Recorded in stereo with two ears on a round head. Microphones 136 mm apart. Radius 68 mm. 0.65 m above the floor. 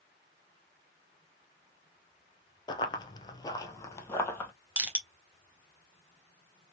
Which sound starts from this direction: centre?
Crushing, at 4.8 s.